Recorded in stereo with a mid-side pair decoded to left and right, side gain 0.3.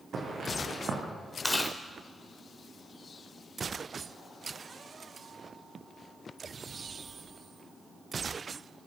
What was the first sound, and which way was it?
Footsteps, 65° right.